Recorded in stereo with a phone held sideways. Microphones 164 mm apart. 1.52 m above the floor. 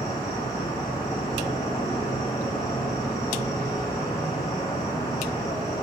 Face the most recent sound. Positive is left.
turn(degrees=25)  # may be behind; listen again after turning